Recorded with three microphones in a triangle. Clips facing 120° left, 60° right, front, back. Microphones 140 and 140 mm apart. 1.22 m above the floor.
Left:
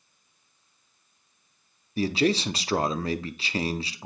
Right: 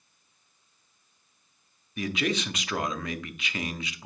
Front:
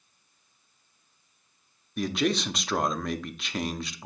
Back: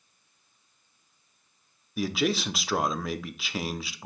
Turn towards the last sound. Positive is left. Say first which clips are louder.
# left 5 dB, even
turn(degrees=95)